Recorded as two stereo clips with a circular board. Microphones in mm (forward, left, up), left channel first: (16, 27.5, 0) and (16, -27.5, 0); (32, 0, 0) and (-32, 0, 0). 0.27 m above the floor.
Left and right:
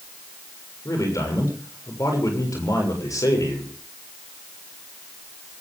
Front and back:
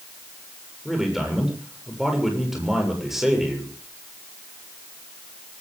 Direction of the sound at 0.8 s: 95° left.